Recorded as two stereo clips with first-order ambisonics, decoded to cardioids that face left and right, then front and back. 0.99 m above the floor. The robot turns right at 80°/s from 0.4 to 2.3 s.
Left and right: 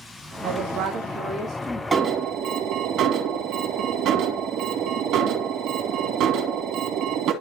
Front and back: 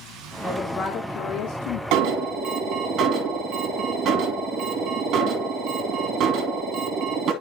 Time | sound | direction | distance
0.4 | a woman speaking | 100° right | 1.6 m
1.9 | an alarm | 160° right | 2.5 m